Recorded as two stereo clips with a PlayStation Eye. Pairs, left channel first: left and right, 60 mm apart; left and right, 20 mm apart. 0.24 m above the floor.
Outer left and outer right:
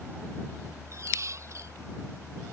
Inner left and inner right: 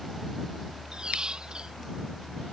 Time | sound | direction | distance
0.9 | a squeak | 50° right (ahead or behind) | ?